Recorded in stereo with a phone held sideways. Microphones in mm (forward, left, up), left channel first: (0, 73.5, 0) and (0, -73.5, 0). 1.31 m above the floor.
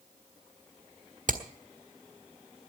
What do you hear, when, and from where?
1.3 s hammering: 60° right (ahead or behind), 1.5 m